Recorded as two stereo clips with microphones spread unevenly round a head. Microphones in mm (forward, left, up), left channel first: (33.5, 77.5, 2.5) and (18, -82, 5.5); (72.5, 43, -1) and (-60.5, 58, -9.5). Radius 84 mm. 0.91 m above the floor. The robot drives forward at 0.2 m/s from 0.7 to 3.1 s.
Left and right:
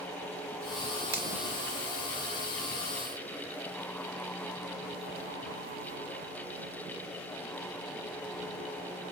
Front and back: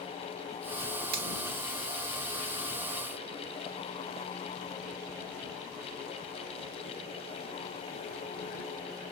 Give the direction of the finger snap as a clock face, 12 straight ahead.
6 o'clock.